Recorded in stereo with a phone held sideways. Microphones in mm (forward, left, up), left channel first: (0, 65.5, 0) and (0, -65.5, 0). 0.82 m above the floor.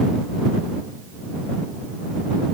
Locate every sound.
Only background noise.